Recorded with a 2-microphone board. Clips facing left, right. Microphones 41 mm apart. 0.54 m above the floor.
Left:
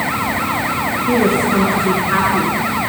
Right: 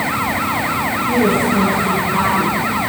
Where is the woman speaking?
80° left, 9 m.